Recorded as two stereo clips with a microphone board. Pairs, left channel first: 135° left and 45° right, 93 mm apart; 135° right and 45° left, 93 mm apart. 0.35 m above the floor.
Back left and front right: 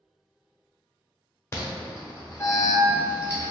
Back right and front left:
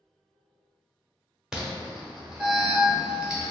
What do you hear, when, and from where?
1.5 s an alarm: 120° left, 1.0 m